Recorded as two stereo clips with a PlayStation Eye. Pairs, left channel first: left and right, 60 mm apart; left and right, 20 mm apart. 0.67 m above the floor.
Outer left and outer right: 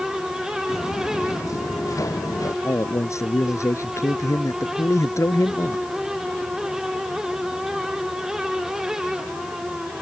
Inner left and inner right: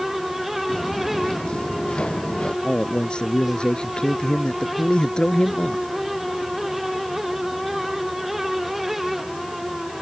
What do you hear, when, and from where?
0.7 s footsteps: 55° left (ahead or behind); by 2.5 s 60° left (ahead or behind)
2.6 s a man speaking: 50° left (ahead or behind)